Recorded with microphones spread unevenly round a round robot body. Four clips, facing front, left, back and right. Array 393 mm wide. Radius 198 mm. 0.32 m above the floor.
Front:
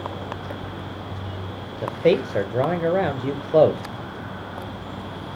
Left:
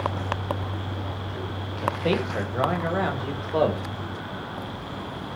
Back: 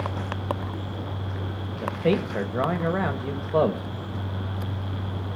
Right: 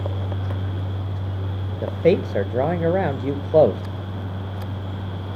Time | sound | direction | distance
1.8 | a man speaking | 50° right | 1.4 m